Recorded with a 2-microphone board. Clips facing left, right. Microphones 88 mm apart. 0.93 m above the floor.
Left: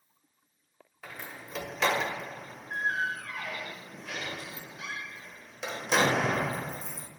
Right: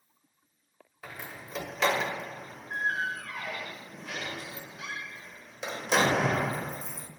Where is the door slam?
5° right (ahead or behind), 0.6 m.